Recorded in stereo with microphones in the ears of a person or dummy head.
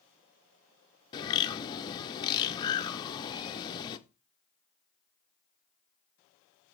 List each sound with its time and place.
1.1 s a bird: 25° left (ahead or behind), 0.7 m